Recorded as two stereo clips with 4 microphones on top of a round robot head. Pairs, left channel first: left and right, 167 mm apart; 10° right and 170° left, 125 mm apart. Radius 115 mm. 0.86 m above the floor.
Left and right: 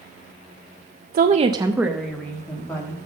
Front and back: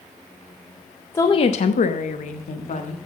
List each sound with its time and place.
1.1 s a woman speaking: 80° right, 0.5 m; by 3.0 s 15° left, 1.7 m